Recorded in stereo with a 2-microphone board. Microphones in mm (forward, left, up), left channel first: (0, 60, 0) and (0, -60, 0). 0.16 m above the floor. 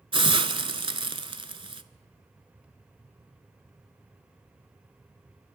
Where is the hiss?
45° right (ahead or behind), 0.6 m.